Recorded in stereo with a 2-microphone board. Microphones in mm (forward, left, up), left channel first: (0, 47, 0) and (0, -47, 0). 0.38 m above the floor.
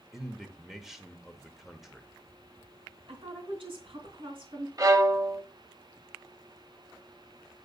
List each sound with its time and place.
0.1 s a man speaking: 5° right (ahead or behind), 1.1 m
3.1 s a woman speaking: 75° right (ahead or behind), 3.5 m
4.8 s a violin: 40° right (ahead or behind), 0.6 m